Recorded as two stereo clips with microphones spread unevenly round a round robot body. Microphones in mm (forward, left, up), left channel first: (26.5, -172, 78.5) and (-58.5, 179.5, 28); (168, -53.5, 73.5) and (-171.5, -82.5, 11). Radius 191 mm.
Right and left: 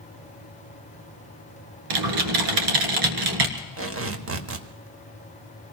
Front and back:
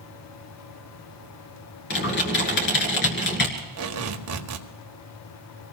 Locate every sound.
1.9 s typing on a keyboard: 70° left, 1.9 m
3.6 s tape being pulled: 150° left, 1.5 m